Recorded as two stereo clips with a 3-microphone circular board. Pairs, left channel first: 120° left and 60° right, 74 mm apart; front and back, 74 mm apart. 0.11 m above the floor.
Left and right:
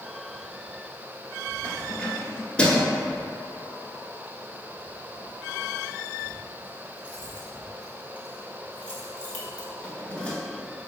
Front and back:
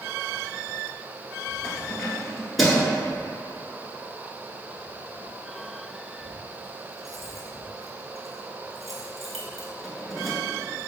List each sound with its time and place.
1.6 s keys jangling: 90° left, 0.9 m